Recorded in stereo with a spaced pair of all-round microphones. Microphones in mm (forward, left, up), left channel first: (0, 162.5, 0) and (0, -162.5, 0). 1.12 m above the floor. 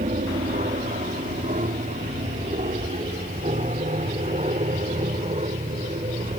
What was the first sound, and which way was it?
An aircraft, 25° right (ahead or behind).